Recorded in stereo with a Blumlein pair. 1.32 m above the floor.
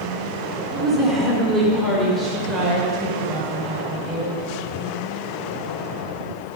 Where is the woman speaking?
5° right, 3 m; by 4.3 s 10° right, 6 m.